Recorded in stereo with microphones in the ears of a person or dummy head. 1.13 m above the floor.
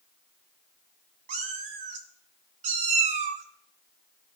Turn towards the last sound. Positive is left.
turn(degrees=-35)  # may be behind; listen again after turning